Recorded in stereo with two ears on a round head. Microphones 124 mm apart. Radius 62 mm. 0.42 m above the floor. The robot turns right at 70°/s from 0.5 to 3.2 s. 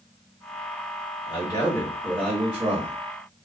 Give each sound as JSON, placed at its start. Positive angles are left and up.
{"t": 1.3, "sound": "a man speaking", "azimuth_deg": 115, "distance_m": 1.6}